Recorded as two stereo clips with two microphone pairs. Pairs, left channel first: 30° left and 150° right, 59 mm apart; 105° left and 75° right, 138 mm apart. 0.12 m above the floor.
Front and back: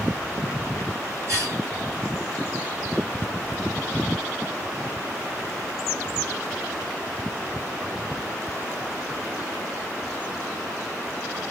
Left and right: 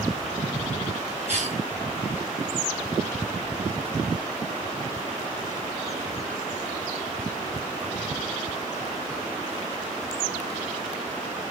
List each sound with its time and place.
1.3 s a cough: 115° right, 4 m